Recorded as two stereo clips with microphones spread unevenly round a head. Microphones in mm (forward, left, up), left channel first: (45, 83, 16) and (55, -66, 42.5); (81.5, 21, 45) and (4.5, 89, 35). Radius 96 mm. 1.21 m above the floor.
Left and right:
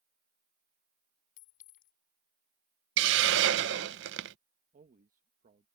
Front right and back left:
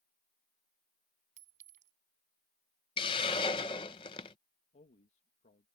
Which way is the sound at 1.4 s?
145° left.